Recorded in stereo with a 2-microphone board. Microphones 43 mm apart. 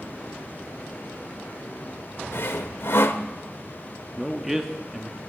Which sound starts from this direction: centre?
A man speaking, at 4.2 s.